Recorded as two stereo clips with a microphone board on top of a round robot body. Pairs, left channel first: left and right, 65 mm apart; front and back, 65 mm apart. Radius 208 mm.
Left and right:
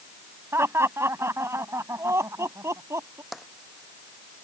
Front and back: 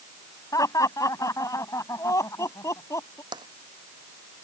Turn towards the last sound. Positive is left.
turn(degrees=180)